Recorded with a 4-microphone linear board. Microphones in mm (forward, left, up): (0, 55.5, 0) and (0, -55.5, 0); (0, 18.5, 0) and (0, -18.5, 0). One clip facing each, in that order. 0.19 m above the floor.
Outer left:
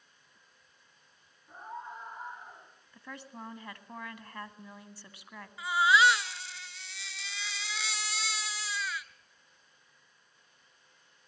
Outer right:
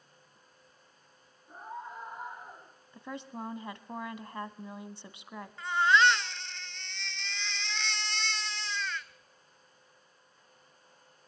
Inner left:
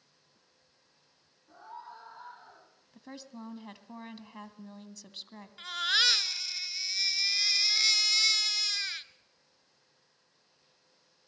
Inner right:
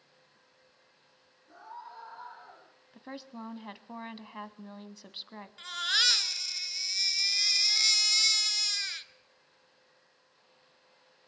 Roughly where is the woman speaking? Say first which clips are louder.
Outer right 5 dB, inner right 3 dB; right.